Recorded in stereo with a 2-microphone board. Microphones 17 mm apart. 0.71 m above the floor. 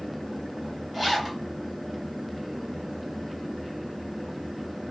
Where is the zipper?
15° right (ahead or behind), 1.0 m.